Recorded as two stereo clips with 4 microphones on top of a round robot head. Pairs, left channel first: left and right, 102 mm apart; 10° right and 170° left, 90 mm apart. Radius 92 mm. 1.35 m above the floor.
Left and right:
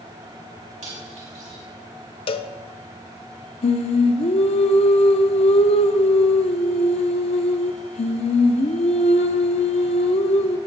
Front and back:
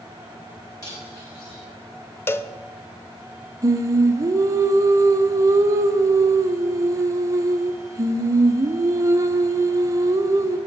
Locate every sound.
0.8 s cutlery clinking: 70° right, 4.5 m
2.3 s a cowbell: 55° left, 0.5 m
3.6 s singing: 115° left, 0.7 m